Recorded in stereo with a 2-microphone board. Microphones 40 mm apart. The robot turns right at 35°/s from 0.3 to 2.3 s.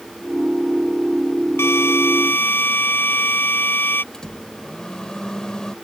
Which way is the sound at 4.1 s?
20° left (ahead or behind).